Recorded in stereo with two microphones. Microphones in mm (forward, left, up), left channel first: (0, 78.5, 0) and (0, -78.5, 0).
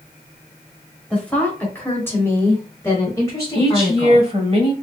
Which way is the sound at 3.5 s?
35° right (ahead or behind).